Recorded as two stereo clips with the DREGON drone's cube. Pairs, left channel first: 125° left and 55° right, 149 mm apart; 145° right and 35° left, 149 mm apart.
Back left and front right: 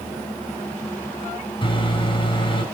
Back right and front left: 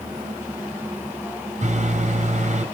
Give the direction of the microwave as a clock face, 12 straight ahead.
10 o'clock.